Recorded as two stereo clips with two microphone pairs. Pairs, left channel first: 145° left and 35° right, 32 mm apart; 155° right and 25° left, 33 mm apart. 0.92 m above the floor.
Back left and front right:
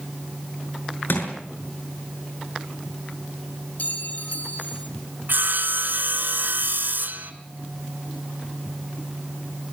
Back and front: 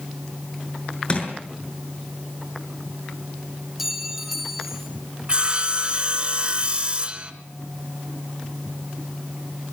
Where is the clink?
110° left, 2.5 m.